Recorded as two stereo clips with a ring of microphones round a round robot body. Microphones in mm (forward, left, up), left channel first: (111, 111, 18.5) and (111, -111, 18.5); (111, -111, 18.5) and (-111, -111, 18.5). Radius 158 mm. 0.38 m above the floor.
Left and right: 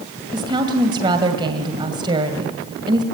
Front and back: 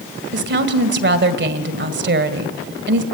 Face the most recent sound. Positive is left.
turn(degrees=-160)